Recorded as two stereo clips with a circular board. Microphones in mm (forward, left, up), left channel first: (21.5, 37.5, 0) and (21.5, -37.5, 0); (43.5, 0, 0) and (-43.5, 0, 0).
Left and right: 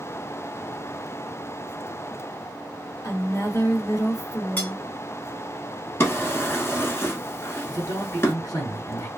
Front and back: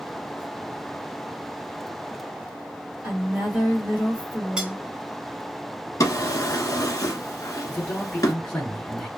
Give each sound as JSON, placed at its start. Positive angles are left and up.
{"t": 3.0, "sound": "a woman speaking", "azimuth_deg": 115, "distance_m": 1.7}
{"t": 4.6, "sound": "cutlery clinking", "azimuth_deg": 115, "distance_m": 0.9}
{"t": 6.0, "sound": "a drawer", "azimuth_deg": 40, "distance_m": 0.8}
{"t": 7.7, "sound": "a man speaking", "azimuth_deg": 75, "distance_m": 2.0}